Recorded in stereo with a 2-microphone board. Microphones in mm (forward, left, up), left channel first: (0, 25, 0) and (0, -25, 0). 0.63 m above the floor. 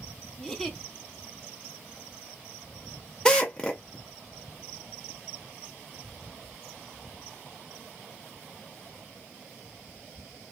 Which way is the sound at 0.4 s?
10° left (ahead or behind).